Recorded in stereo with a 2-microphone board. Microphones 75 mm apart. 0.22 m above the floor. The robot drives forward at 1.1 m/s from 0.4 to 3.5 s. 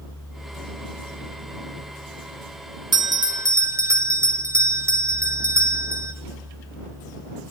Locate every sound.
2.9 s a bell: 75° right (ahead or behind), 0.6 m; by 6.1 s 45° right (ahead or behind), 0.8 m